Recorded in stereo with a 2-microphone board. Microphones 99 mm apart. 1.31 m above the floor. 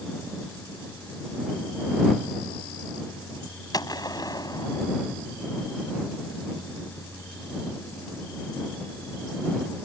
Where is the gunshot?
40° left (ahead or behind).